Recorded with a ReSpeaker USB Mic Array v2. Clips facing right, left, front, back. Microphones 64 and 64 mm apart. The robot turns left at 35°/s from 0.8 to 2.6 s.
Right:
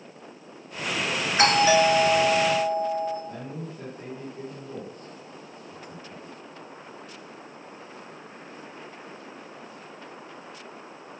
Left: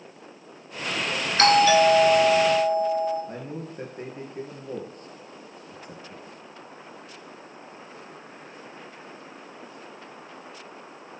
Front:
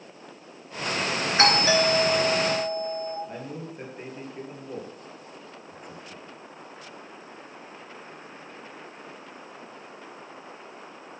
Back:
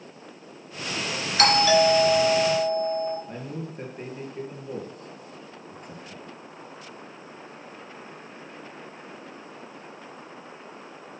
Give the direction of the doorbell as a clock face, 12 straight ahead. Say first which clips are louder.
Left 2 dB, back 3 dB; 1 o'clock.